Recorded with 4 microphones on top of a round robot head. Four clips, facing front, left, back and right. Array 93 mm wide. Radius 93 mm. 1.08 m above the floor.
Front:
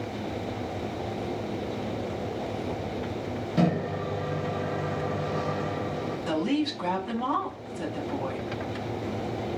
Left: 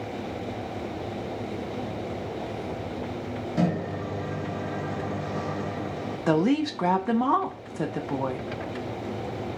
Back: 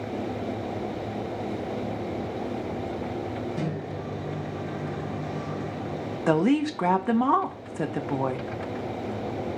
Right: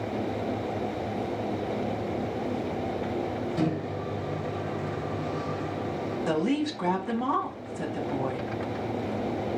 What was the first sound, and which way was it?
A microwave, 30° left.